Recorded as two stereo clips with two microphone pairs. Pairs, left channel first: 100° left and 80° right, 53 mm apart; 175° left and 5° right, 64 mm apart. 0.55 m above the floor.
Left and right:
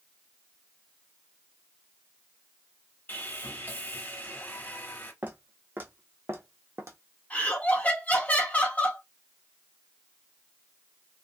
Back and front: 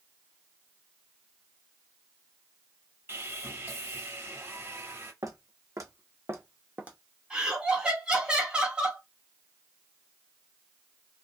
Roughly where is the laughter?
Ahead left.